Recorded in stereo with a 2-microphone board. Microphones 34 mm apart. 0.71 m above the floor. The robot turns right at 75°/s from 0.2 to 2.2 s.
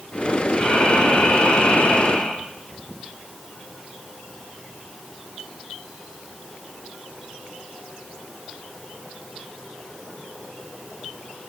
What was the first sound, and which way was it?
Breathing, 30° left.